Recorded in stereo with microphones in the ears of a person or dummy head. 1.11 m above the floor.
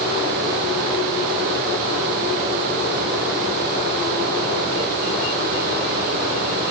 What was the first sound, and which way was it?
Only background noise.